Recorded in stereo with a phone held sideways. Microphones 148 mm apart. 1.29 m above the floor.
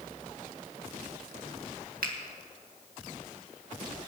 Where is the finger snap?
75° right (ahead or behind), 1.8 m.